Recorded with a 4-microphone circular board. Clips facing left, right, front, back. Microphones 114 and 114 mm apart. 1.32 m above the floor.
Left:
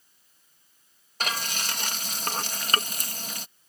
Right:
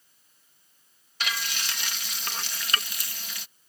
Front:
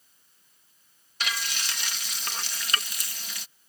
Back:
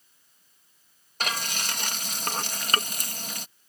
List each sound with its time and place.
1.2 s frying: 135° left